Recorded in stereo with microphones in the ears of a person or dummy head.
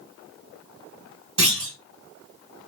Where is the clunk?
5° right (ahead or behind), 2 m.